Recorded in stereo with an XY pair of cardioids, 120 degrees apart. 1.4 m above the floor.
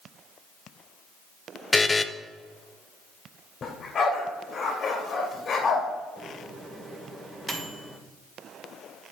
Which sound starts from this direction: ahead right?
A microwave, at 6.2 s.